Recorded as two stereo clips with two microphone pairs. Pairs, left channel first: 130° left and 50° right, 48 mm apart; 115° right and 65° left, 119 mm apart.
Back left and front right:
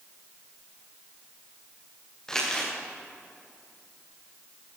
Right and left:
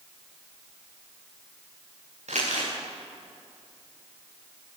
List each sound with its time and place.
2.3 s crumpling: 50° left, 8.5 m